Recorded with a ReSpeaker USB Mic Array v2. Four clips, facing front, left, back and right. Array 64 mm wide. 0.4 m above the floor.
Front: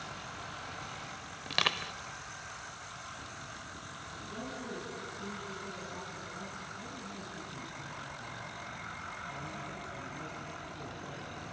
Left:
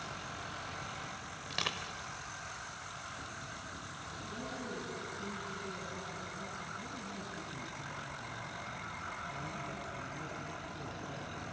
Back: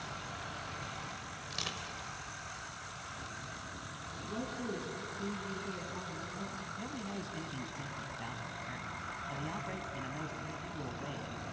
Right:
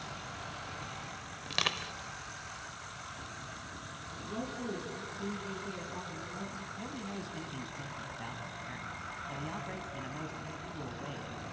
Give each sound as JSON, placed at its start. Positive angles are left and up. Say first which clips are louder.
{"t": 1.5, "sound": "crushing", "louder": "right 4 dB, front 11 dB", "azimuth_deg": -20, "distance_m": 0.8}
{"t": 4.2, "sound": "a woman speaking", "louder": "right 4 dB, back 3 dB", "azimuth_deg": -130, "distance_m": 4.5}
{"t": 6.8, "sound": "a man speaking", "louder": "right 3 dB, back 3 dB", "azimuth_deg": -135, "distance_m": 2.5}